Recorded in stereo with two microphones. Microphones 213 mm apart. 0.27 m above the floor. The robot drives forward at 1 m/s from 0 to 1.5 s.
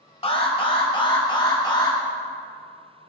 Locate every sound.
0.2 s an alarm: 25° left (ahead or behind), 2 m; by 2.0 s 20° left (ahead or behind), 2.5 m